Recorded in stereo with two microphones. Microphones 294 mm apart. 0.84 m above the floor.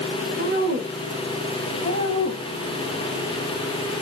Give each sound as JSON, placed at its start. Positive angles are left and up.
{"t": 0.4, "sound": "a woman speaking", "side_deg": -30, "distance_m": 2.5}